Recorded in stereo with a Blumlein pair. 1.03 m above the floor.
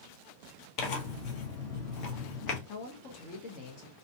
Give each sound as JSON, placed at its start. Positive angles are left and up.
{"t": 0.8, "sound": "tearing paper", "azimuth_deg": 40, "distance_m": 1.0}
{"t": 2.7, "sound": "a man speaking", "azimuth_deg": 40, "distance_m": 0.9}